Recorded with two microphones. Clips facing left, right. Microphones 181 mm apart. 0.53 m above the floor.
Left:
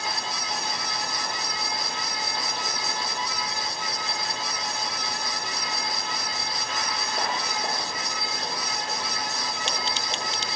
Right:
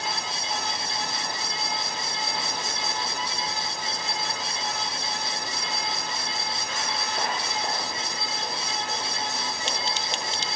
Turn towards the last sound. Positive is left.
No sound to turn to.